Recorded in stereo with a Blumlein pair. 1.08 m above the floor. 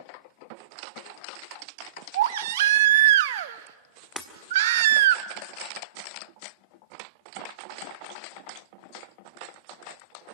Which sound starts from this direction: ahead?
Breaking glass, at 4.2 s.